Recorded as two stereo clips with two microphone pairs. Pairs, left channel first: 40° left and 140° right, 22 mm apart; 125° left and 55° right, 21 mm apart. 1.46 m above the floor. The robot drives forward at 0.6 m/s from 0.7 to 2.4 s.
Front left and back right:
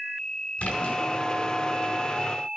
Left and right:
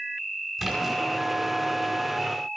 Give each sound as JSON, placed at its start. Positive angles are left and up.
{"t": 0.6, "sound": "a splash", "azimuth_deg": 30, "distance_m": 5.0}